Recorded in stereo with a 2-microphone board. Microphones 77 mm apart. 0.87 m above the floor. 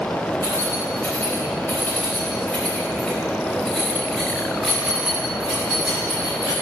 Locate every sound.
0.4 s keys jangling: 35° left (ahead or behind), 3.5 m; by 6.5 s 15° right (ahead or behind), 4 m